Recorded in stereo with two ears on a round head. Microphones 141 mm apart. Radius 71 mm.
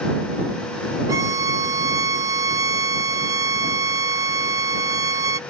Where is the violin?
20° right (ahead or behind).